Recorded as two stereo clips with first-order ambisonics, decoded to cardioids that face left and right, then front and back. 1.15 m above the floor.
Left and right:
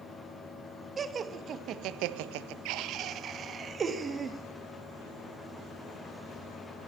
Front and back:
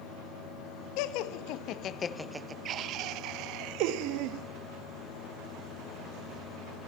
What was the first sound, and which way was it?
Laughter, 20° right.